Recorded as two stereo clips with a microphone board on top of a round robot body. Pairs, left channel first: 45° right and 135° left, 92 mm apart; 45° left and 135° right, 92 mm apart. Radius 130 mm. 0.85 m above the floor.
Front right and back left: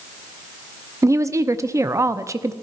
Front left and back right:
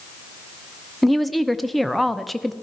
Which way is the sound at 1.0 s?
135° left.